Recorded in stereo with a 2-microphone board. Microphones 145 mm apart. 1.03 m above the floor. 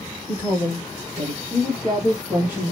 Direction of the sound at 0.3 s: 25° right (ahead or behind).